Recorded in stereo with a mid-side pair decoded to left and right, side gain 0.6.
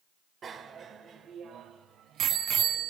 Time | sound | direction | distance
0.4 | a bicycle bell | 40° right | 3 m